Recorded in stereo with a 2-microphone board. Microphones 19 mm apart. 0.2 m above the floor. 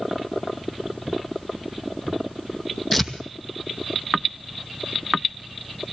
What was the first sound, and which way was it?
Tearing paper, 10° left (ahead or behind).